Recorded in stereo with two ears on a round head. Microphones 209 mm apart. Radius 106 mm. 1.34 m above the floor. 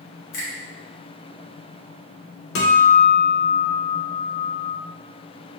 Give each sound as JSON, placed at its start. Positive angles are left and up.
{"t": 0.3, "sound": "a finger snap", "side_deg": 85, "distance_m": 1.3}
{"t": 2.5, "sound": "a guitar", "side_deg": 55, "distance_m": 0.7}